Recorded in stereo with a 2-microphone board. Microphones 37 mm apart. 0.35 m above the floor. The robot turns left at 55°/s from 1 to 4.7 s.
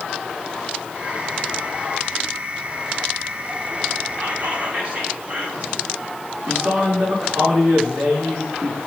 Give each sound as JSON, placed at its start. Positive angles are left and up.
{"t": 4.2, "sound": "whispering", "side_deg": -50, "distance_m": 2.5}
{"t": 6.5, "sound": "a man speaking", "side_deg": -65, "distance_m": 4.5}